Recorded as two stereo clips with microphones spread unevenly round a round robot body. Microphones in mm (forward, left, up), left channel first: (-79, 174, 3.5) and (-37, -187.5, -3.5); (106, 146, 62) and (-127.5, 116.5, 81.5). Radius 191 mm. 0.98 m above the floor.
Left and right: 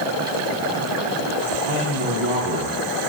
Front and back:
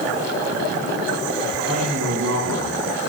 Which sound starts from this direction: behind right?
A man speaking, at 1.6 s.